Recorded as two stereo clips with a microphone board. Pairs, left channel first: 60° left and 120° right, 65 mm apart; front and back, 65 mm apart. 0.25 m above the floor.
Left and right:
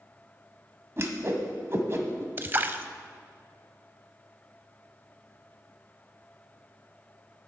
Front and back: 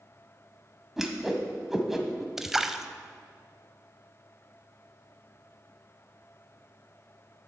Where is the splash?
100° right, 0.6 m.